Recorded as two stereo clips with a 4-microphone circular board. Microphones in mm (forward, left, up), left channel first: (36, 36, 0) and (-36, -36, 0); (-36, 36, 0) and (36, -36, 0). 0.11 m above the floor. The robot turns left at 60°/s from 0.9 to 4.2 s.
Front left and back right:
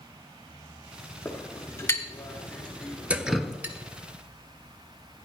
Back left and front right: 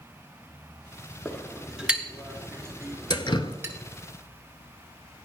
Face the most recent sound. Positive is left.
turn(degrees=85)